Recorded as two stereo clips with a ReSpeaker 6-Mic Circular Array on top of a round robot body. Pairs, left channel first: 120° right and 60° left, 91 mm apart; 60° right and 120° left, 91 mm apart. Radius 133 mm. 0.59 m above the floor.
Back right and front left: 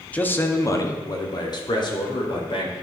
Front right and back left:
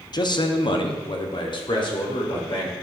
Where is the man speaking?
50° right, 0.9 m; by 2.7 s 95° right, 2.5 m.